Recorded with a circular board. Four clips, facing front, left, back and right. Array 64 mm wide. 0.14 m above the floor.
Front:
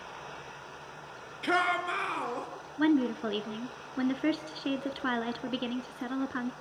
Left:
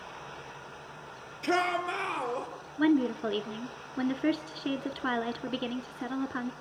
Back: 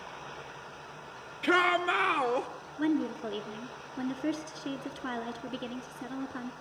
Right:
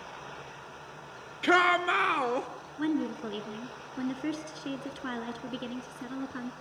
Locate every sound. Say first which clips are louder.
1.4 s a shout: right 5 dB, back 2 dB; 95° right, 2 m; by 2.5 s 130° right, 2.5 m
2.8 s a woman speaking: left 5 dB, front 3 dB; 40° left, 1.3 m